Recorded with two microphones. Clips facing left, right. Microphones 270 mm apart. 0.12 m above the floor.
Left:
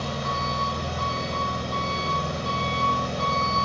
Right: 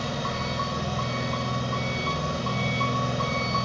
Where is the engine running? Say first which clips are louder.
Even; 10° right (ahead or behind), 4.5 m.